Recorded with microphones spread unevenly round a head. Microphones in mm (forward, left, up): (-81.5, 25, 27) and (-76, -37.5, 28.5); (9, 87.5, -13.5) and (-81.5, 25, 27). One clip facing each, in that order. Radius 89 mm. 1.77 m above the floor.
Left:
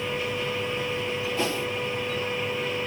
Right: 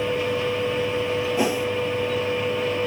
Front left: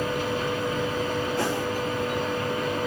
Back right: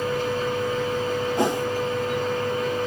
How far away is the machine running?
About 2 m.